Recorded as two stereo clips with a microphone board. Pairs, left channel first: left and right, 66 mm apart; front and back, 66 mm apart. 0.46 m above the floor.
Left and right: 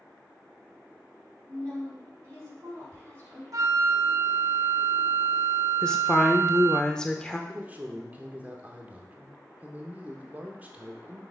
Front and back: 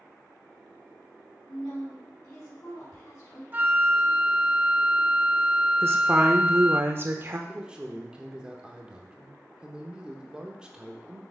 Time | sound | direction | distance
1.5 | a woman speaking | 40° right | 4 m
3.5 | a flute | 120° right | 0.5 m
5.8 | a woman speaking | 165° left | 0.9 m
7.5 | a man speaking | 120° right | 0.9 m